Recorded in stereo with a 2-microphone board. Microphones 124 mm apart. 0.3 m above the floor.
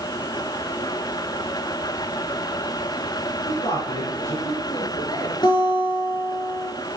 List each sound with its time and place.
3.5 s a man speaking: 45° left (ahead or behind), 4 m; by 5.3 s 35° left (ahead or behind), 5.5 m
5.4 s a guitar: 40° left (ahead or behind), 5 m